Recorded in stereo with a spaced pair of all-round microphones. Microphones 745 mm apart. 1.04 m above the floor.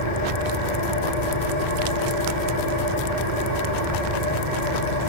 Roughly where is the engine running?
Left.